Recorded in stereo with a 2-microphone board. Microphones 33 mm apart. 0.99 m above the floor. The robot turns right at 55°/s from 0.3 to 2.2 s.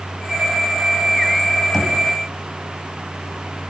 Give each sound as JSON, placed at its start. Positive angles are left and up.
{"t": 1.7, "sound": "knocking", "side_deg": 5, "distance_m": 6.5}